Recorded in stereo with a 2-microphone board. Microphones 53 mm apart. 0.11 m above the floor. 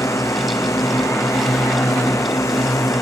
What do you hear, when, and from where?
0.0 s a drone: 80° left